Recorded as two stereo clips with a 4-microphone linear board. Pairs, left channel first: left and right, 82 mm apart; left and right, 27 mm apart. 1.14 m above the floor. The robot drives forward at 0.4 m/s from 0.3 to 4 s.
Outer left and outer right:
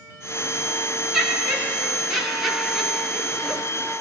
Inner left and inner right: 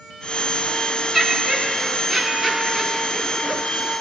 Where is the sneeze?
I don't hear a sneeze.